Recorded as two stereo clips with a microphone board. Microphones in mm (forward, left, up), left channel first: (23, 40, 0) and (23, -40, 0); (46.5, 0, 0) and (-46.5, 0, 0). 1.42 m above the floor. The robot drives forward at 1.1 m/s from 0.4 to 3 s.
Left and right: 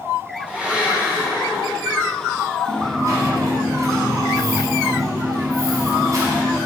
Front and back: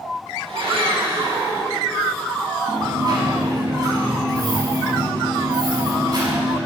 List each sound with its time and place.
0.5 s a blender: 165° right, 4.5 m; by 2.1 s 170° right, 6.5 m
2.7 s a dropped coin: 135° right, 5 m